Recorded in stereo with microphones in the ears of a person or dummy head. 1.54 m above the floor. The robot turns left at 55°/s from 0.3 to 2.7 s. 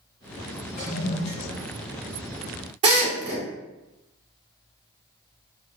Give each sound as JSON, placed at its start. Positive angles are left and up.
{"t": 0.8, "sound": "a toilet flushing", "azimuth_deg": 115, "distance_m": 2.0}
{"t": 2.8, "sound": "a drill", "side_deg": -30, "distance_m": 1.6}